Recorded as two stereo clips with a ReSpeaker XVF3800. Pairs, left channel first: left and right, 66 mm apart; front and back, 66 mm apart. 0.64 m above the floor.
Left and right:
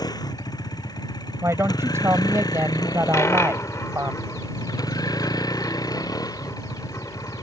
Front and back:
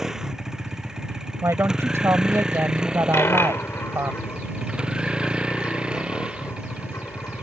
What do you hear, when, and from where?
0.0 s a vehicle: 100° left; by 7.4 s 105° left
1.4 s a woman speaking: 135° right
3.1 s a dropped coin: 50° left